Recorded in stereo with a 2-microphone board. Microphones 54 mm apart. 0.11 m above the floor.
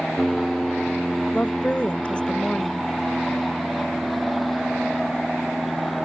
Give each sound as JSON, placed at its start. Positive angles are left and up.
{"t": 0.0, "sound": "an aircraft", "side_deg": 0}
{"t": 1.3, "sound": "a woman speaking", "side_deg": 20}